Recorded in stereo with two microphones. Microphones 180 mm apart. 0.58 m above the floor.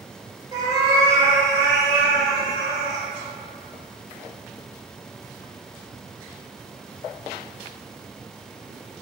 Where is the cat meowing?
20° right (ahead or behind), 0.6 m.